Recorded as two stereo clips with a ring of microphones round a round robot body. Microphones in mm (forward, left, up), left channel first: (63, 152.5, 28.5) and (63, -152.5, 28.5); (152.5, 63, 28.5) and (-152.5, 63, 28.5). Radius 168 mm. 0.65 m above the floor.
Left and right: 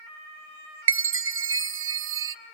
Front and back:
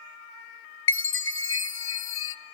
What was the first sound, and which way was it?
A chime, 45° right.